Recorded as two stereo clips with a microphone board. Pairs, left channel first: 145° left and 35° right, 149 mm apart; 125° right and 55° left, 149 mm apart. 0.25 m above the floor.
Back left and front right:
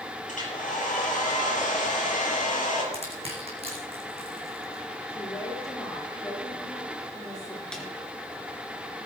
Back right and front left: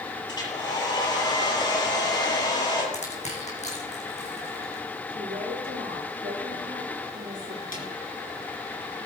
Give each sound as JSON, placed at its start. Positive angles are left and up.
{"t": 0.3, "sound": "a hair dryer", "azimuth_deg": 175, "distance_m": 5.0}
{"t": 2.9, "sound": "crushing", "azimuth_deg": -85, "distance_m": 4.0}
{"t": 5.1, "sound": "a woman speaking", "azimuth_deg": 80, "distance_m": 7.0}
{"t": 7.7, "sound": "a snare drum", "azimuth_deg": -130, "distance_m": 3.0}